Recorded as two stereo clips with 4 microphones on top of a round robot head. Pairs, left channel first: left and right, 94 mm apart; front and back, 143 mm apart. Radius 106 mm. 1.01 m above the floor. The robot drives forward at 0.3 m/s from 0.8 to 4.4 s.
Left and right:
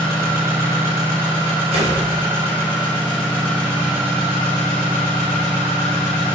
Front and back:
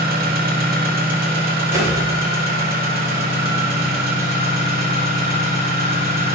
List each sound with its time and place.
0.0 s an engine running: 160° right, 2.5 m; by 6.3 s 165° right, 3.5 m
1.7 s a whoosh: 105° right, 4 m